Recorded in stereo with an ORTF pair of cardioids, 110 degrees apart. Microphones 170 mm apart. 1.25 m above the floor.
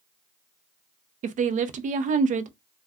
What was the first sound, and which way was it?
A woman speaking, 45° right.